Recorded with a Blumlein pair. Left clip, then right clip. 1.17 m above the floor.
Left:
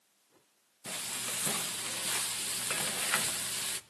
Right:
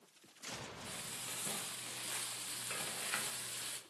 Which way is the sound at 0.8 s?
65° left.